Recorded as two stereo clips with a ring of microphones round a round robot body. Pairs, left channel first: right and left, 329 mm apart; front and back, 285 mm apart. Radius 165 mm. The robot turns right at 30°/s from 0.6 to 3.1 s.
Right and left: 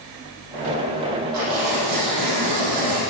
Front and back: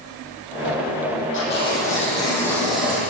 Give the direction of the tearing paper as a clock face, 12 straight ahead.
10 o'clock.